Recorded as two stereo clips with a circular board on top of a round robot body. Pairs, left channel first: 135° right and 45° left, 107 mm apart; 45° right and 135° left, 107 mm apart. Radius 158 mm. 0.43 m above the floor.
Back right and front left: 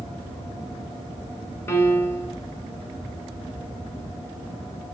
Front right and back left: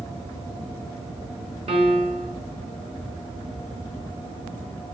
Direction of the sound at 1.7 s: 155° left.